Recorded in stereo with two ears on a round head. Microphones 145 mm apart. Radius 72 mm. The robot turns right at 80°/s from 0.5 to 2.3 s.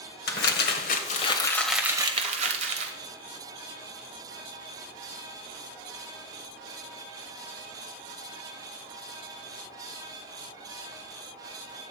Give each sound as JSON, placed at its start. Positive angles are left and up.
{"t": 0.3, "sound": "crumpling", "azimuth_deg": 85, "distance_m": 1.4}